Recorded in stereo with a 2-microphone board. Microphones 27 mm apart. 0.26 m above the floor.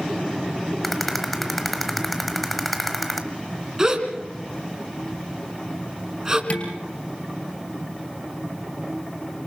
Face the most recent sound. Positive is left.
turn(degrees=50)  # may be behind; listen again after turning